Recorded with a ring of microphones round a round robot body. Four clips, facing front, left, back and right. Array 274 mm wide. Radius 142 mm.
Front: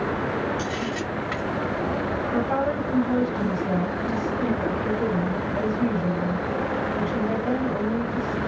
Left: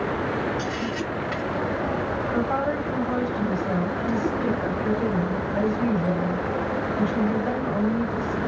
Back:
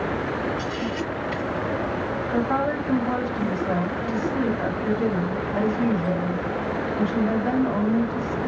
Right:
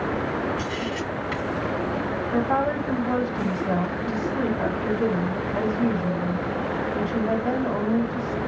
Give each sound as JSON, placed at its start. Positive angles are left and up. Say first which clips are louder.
{"t": 0.6, "sound": "a camera shutter", "louder": "left 1 dB, even", "azimuth_deg": -15, "distance_m": 3.0}
{"t": 2.3, "sound": "a woman speaking", "louder": "right 3 dB, back 1 dB", "azimuth_deg": -110, "distance_m": 1.5}